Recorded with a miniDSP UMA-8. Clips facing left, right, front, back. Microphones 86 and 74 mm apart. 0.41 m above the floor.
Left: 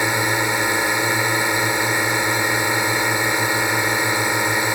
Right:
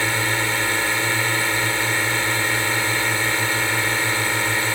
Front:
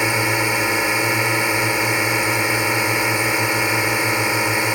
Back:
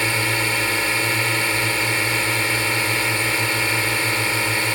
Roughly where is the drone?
Ahead left.